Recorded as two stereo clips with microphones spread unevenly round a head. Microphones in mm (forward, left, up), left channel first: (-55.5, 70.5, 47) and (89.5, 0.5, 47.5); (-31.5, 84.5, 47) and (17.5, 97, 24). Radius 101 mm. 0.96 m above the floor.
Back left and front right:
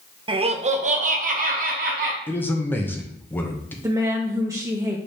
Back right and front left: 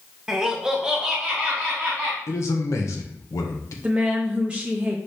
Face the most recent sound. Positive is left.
turn(degrees=35)